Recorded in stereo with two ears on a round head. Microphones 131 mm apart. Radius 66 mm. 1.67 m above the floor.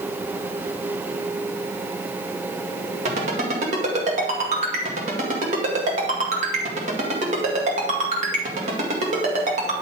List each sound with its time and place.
3.0 s a ringtone: 45° right (ahead or behind), 2 m